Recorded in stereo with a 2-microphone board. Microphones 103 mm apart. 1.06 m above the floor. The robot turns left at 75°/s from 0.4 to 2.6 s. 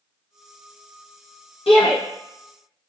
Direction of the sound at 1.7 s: 65° left (ahead or behind).